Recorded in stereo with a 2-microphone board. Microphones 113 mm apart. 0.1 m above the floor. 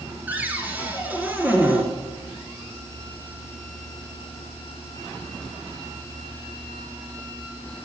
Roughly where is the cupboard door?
Centre.